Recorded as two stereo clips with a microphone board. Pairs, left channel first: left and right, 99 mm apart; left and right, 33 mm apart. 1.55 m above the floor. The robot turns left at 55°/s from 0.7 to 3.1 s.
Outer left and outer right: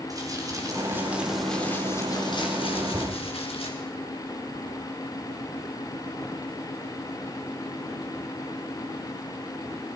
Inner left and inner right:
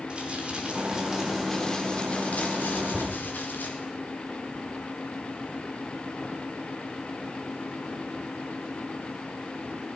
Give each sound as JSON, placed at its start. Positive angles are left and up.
{"t": 0.1, "sound": "crumpling", "azimuth_deg": -145, "distance_m": 4.5}
{"t": 2.9, "sound": "a thud", "side_deg": -20, "distance_m": 7.0}